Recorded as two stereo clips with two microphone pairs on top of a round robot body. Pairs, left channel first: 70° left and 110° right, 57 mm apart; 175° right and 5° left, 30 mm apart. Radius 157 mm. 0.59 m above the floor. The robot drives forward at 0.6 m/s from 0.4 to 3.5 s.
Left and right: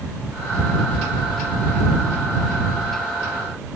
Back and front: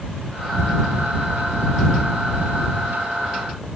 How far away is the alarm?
No alarm in this recording.